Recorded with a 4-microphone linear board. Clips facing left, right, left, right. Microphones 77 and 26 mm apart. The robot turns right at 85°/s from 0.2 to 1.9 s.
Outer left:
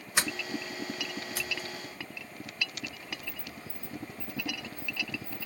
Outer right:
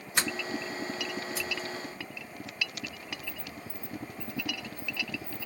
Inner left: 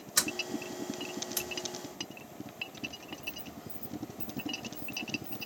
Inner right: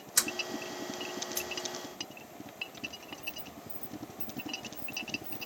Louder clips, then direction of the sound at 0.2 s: Outer right 1 dB, inner left 1 dB; 10° left (ahead or behind).